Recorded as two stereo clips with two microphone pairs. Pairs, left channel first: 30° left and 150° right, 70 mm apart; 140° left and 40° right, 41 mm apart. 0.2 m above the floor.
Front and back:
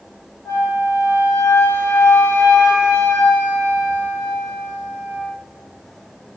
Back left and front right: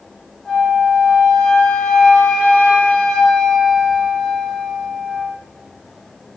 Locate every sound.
0.5 s a flute: 75° left, 2 m